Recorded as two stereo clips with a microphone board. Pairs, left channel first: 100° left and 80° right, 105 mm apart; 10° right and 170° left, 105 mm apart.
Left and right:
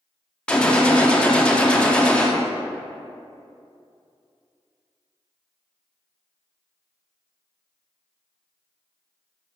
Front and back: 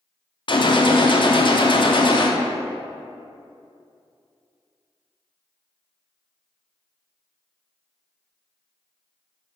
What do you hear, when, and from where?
0.5 s a gunshot: 20° left, 0.6 m